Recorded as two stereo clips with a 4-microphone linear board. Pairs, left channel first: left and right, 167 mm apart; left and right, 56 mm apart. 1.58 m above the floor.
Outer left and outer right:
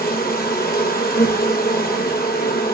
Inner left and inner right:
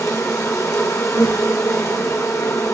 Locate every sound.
0.0 s an insect: 65° left (ahead or behind), 0.9 m